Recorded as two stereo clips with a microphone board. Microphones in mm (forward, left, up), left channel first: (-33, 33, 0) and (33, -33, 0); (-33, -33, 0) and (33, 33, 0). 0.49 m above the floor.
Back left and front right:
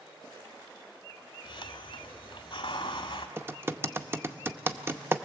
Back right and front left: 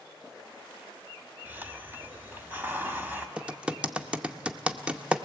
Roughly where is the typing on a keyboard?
Ahead.